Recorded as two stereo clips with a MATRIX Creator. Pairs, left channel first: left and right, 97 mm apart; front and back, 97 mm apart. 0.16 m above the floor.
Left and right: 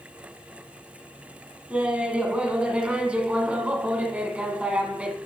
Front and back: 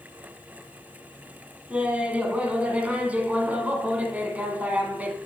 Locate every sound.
1.7 s laughter: 140° right, 1.0 m